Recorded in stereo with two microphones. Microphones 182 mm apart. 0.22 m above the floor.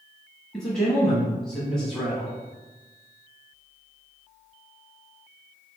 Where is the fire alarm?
I don't hear a fire alarm.